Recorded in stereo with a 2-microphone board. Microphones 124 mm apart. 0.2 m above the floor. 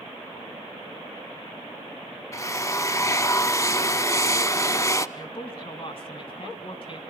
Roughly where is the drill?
Left.